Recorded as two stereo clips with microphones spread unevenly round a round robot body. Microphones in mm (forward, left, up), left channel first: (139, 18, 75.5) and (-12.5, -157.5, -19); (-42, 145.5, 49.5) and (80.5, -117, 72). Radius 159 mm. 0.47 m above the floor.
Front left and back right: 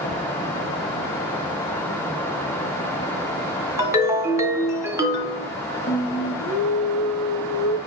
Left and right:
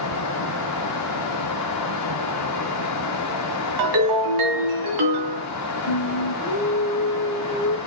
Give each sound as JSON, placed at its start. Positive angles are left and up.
{"t": 3.8, "sound": "a ringtone", "azimuth_deg": -55, "distance_m": 2.5}
{"t": 5.9, "sound": "singing", "azimuth_deg": 95, "distance_m": 1.8}